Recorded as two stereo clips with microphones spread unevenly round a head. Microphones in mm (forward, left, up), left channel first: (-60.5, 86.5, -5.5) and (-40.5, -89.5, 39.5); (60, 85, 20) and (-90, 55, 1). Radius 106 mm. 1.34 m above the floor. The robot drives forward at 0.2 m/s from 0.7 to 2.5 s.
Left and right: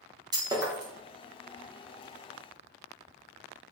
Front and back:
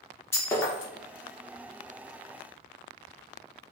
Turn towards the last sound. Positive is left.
turn(degrees=-120)